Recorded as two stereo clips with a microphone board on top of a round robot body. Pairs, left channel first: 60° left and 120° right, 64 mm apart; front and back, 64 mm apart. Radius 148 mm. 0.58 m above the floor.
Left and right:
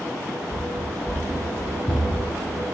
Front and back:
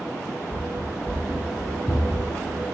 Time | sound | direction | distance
0.5 | running footsteps | 5° right | 1.7 m